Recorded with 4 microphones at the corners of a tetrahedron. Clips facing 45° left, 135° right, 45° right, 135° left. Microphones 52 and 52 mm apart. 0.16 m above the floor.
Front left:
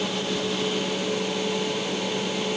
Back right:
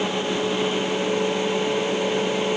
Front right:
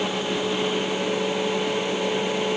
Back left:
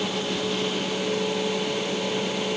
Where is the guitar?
No guitar in this recording.